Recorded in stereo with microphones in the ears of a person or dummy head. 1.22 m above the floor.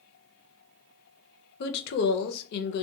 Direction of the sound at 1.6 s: 55° left (ahead or behind).